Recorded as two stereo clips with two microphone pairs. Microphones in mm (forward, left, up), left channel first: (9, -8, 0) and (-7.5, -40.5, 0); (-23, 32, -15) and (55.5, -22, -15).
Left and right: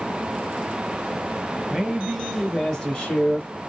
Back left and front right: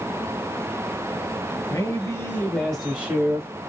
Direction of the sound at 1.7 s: 175° left.